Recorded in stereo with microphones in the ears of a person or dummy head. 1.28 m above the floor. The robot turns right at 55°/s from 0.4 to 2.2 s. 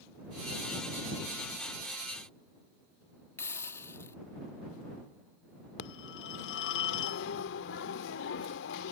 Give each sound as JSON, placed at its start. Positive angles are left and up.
{"t": 3.4, "sound": "a hiss", "side_deg": 15}
{"t": 5.8, "sound": "a phone ringing", "side_deg": 70}